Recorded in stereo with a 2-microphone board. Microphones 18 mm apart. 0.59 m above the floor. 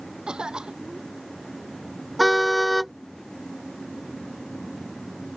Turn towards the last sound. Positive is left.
turn(degrees=5)  # may be behind; listen again after turning